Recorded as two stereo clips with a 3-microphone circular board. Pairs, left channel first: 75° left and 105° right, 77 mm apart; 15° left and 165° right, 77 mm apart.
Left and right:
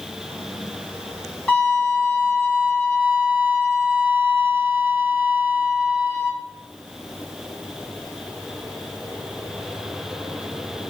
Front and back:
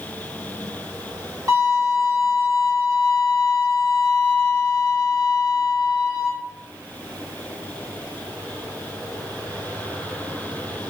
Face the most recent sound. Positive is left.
turn(degrees=155)